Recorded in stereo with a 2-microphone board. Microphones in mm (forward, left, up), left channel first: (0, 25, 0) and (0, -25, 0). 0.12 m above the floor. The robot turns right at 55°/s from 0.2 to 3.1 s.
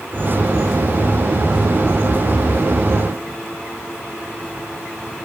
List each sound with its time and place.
Only background noise.